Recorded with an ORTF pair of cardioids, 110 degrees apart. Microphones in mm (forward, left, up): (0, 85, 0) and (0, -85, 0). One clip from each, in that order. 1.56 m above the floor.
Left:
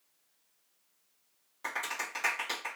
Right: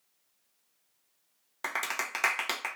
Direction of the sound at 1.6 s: 65° right.